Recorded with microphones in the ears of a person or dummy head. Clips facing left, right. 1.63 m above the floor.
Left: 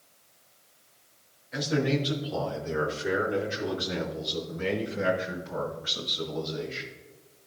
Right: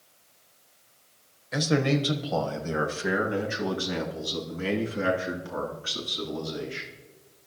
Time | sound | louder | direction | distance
1.5 | a man speaking | right 2 dB | 65° right (ahead or behind) | 1.0 m